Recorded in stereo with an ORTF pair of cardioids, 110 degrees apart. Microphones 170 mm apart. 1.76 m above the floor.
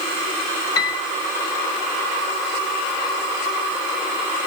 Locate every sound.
0.8 s a piano: 20° left, 2.5 m